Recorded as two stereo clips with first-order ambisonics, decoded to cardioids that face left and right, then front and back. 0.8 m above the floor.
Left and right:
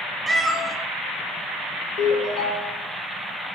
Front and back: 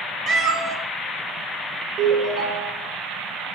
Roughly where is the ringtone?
Behind left.